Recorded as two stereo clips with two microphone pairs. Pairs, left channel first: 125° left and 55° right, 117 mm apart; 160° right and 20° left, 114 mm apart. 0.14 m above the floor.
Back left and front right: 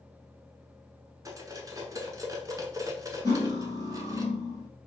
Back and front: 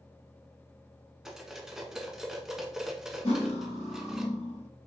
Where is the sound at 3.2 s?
Straight behind, 2 m.